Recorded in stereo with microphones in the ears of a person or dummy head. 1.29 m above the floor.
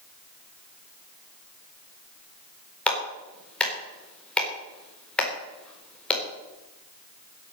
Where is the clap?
10° left (ahead or behind), 4 m.